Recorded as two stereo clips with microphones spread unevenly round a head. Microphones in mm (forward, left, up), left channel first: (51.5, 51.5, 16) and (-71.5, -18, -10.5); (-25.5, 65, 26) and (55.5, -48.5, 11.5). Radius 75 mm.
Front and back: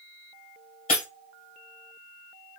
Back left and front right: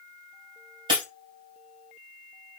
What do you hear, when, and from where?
0.9 s breaking glass: straight ahead, 2 m